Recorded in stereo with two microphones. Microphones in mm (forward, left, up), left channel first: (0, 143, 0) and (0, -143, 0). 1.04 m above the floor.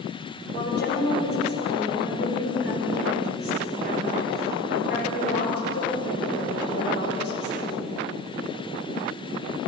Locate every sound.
0.5 s a woman speaking: 35° left (ahead or behind), 4 m